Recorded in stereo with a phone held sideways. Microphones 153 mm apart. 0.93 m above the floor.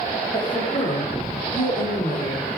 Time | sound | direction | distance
0.3 | a woman speaking | 55° left (ahead or behind) | 3 m